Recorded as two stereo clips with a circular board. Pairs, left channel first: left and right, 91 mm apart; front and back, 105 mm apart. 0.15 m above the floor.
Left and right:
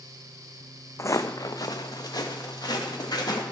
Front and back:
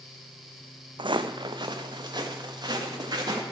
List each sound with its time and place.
1.0 s footsteps: 145° left, 0.6 m; by 3.4 s 130° left, 3 m